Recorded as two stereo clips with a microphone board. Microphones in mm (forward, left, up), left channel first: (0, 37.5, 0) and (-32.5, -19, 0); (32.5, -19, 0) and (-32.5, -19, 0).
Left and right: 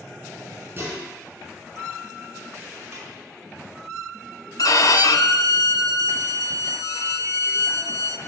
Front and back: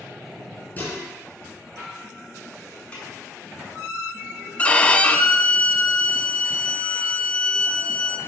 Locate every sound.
0.8 s dishes clattering: 65° right, 5.5 m
2.9 s a snare drum: 70° right, 5 m
4.6 s a violin: 70° left, 0.8 m